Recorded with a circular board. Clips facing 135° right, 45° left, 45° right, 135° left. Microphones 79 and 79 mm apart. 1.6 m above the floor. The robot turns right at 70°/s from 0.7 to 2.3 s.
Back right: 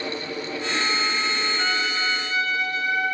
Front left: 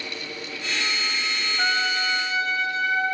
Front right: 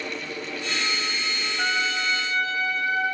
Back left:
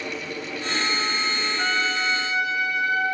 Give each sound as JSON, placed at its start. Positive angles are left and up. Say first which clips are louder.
{"t": 1.6, "sound": "a trumpet", "louder": "front left 5 dB, even", "azimuth_deg": 20, "distance_m": 1.2}